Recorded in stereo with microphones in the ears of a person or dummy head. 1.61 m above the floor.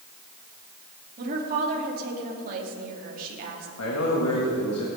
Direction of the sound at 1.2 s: 50° right (ahead or behind).